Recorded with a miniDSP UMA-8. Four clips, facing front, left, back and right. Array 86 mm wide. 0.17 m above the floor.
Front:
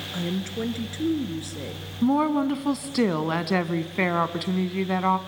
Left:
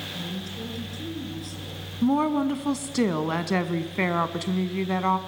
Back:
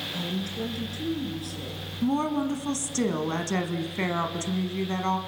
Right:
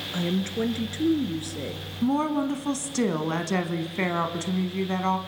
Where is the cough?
No cough in this recording.